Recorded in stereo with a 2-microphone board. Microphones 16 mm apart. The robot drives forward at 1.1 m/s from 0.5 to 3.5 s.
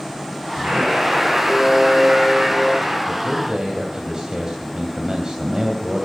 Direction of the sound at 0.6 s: 70° right (ahead or behind).